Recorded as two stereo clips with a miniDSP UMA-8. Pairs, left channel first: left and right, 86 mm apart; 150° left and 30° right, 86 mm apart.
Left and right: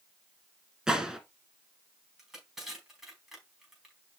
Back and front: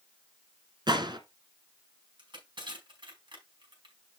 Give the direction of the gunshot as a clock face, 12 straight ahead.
12 o'clock.